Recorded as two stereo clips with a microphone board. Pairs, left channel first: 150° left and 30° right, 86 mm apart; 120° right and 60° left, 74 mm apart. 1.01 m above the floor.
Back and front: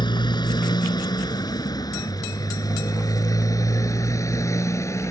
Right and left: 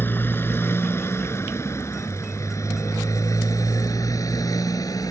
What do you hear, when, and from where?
0.0 s a motorcycle: straight behind; by 5.1 s 155° right